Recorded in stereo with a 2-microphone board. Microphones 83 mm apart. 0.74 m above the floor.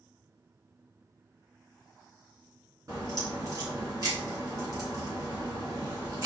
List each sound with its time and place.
2.9 s a crack: 45° right (ahead or behind), 2 m